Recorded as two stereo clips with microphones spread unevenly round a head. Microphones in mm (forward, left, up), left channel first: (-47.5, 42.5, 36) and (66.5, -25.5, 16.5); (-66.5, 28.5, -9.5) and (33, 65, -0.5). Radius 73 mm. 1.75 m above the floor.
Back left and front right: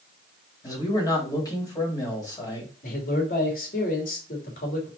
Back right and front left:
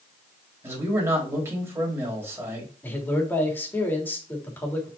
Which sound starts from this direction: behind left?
A man speaking, at 2.8 s.